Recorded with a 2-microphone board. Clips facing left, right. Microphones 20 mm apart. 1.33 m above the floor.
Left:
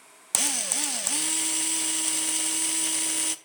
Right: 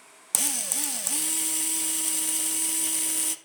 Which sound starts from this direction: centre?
A drill, at 0.3 s.